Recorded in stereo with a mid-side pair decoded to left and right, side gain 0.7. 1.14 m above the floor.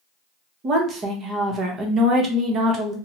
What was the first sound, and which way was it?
A woman speaking, 40° right.